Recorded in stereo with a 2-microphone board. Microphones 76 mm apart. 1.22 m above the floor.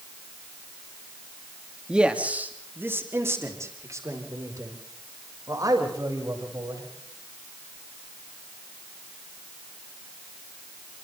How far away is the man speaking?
About 2.5 m.